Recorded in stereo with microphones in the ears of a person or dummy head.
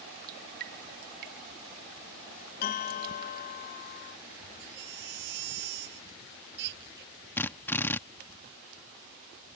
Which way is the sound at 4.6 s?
60° right (ahead or behind).